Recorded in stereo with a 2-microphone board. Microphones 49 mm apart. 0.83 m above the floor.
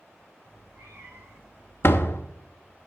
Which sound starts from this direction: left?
A door slam, at 1.8 s.